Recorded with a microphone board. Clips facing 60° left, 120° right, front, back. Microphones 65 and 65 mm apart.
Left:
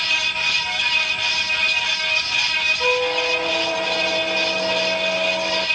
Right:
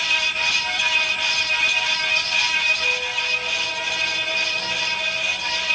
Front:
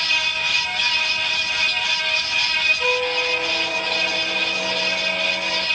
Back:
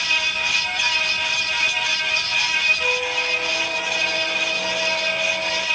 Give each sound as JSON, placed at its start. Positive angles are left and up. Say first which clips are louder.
{"t": 2.8, "sound": "a squeak", "louder": "left 5 dB, front 2 dB", "azimuth_deg": 85, "distance_m": 0.5}